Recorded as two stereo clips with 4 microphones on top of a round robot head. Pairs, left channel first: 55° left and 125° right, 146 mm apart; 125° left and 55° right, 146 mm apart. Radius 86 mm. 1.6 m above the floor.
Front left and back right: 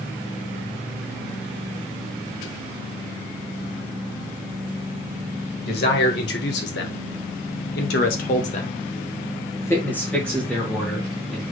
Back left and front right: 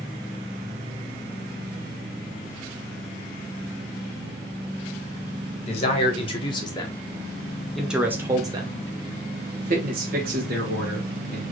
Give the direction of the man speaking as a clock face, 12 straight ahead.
9 o'clock.